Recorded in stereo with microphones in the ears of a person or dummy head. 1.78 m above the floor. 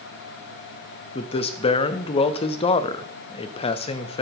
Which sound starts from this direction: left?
A man speaking, at 1.1 s.